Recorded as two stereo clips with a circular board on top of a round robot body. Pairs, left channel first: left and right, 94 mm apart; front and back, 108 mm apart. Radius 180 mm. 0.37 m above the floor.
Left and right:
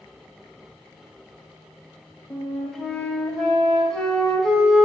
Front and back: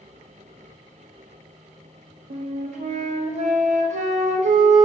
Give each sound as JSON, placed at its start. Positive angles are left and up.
{"t": 2.3, "sound": "a flute", "azimuth_deg": 175, "distance_m": 0.7}